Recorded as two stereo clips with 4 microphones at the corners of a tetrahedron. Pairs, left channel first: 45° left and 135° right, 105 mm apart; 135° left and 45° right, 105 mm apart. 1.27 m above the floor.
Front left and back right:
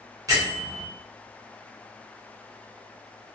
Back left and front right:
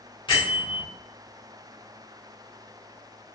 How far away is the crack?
No crack in this recording.